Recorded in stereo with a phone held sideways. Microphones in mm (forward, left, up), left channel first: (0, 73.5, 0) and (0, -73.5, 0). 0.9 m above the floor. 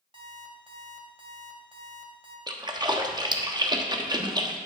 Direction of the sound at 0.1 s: 40° right (ahead or behind).